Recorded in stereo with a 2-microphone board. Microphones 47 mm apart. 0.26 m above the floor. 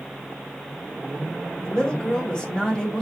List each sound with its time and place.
1.6 s a woman speaking: 15° left (ahead or behind), 0.9 m